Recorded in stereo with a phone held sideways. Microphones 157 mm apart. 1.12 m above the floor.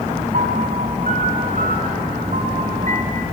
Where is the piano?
55° right (ahead or behind), 4 m.